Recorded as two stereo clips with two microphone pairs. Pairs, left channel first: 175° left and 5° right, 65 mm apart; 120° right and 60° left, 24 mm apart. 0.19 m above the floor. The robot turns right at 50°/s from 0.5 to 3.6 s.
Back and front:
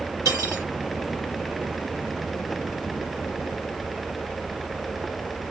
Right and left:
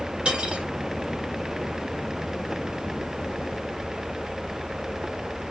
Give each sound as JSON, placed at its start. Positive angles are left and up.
{"t": 0.2, "sound": "cutlery clinking", "azimuth_deg": 25, "distance_m": 1.4}